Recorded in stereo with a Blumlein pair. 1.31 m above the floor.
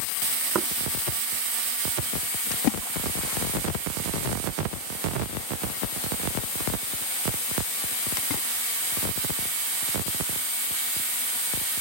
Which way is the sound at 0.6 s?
25° right.